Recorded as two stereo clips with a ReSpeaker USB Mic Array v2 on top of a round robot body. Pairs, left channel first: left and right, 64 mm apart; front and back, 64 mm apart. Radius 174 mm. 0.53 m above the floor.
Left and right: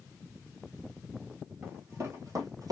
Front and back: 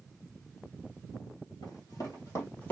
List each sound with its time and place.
1.6 s running footsteps: 20° right, 1.0 m; by 2.7 s 65° right, 1.2 m